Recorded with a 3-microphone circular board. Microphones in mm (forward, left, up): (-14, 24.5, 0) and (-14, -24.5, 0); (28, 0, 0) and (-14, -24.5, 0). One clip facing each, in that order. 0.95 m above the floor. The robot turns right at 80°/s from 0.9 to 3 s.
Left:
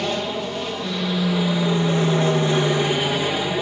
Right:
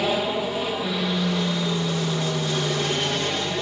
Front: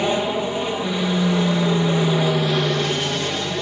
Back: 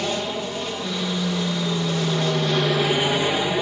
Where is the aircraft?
15° right; by 3.6 s 155° left.